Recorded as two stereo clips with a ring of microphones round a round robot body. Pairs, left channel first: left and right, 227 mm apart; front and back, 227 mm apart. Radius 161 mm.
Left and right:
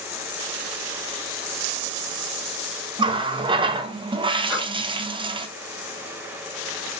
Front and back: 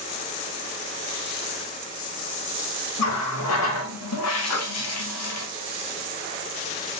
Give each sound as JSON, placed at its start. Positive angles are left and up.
{"t": 3.0, "sound": "a running tap", "azimuth_deg": -20, "distance_m": 0.6}
{"t": 4.5, "sound": "breathing", "azimuth_deg": -5, "distance_m": 1.9}